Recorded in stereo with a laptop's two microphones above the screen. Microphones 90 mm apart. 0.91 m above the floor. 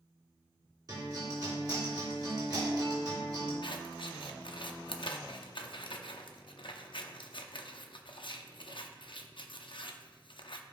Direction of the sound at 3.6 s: 65° left (ahead or behind).